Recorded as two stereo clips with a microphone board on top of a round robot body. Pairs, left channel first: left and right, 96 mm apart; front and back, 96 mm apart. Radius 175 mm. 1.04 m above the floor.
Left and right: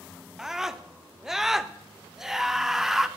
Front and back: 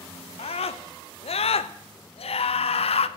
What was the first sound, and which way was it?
A scream, 5° right.